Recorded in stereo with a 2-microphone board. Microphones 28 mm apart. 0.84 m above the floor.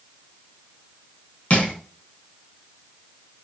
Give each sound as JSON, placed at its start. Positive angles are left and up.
{"t": 1.5, "sound": "crushing", "side_deg": 55, "distance_m": 6.0}